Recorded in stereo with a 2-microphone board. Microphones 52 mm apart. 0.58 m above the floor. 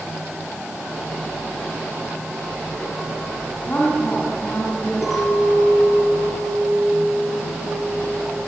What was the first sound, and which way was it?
A woman speaking, 40° left (ahead or behind).